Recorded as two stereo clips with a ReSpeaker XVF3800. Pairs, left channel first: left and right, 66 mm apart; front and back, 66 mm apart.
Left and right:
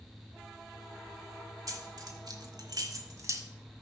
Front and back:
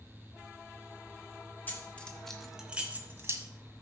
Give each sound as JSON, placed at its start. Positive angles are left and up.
{"t": 1.7, "sound": "keys jangling", "azimuth_deg": -65, "distance_m": 1.8}